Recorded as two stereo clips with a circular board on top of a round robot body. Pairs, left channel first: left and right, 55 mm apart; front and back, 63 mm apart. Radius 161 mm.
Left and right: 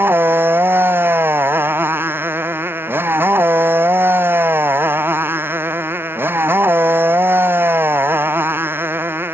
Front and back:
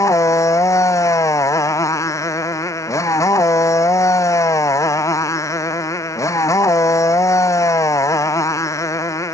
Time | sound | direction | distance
0.0 | a motorcycle | 40° right | ?